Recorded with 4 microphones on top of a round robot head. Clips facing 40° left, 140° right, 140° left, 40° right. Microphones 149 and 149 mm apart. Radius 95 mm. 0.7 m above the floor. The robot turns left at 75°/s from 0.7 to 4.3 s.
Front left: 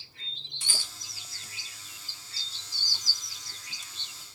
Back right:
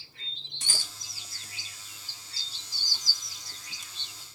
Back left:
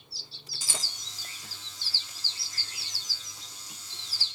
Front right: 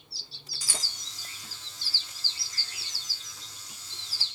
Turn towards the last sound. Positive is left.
turn(degrees=-75)